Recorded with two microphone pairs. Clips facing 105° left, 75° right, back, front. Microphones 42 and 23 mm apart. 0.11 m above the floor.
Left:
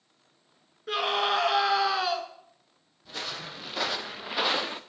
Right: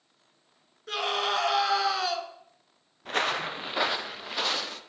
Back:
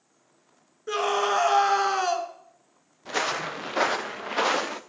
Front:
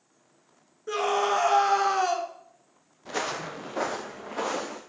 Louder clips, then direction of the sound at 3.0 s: Right 9 dB, back 4 dB; 105° right.